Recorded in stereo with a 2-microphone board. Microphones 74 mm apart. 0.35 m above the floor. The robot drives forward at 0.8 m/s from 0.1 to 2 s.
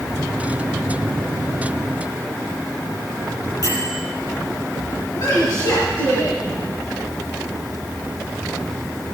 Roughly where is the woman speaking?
Left.